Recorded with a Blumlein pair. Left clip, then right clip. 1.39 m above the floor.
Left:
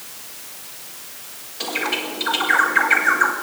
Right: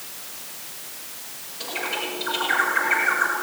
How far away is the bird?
About 4.5 m.